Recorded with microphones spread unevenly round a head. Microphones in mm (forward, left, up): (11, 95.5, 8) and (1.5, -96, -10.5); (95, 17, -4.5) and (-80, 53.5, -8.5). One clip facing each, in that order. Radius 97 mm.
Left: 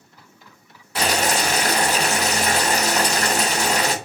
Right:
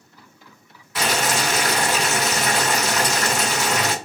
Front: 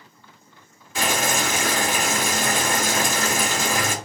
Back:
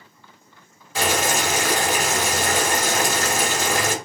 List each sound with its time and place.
0.9 s boiling: 130° left, 1.6 m